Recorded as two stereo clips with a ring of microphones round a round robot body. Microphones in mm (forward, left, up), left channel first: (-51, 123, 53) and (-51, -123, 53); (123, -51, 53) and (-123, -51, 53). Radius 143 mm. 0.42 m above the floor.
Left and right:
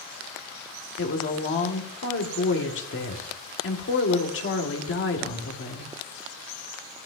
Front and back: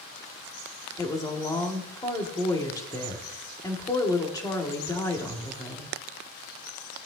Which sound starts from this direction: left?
A woman speaking, at 1.0 s.